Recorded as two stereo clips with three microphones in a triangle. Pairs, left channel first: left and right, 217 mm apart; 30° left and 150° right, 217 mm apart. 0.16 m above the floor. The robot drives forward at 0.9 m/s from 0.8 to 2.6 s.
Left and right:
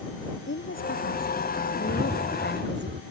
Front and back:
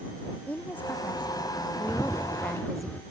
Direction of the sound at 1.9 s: 50° right.